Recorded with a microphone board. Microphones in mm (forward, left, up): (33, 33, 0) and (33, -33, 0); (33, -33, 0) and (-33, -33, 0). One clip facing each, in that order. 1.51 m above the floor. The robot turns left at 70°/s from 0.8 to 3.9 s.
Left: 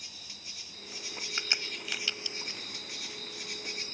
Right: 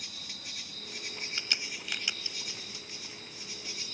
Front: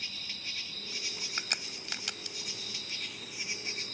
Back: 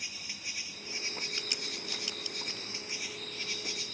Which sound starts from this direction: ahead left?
A crack, at 1.4 s.